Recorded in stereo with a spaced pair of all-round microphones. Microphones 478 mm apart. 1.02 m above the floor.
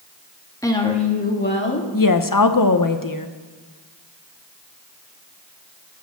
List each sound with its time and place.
0.6 s a woman speaking: 5° left (ahead or behind), 1.5 m; by 1.8 s 25° left (ahead or behind), 1.9 m
1.9 s a woman speaking: 45° left (ahead or behind), 0.8 m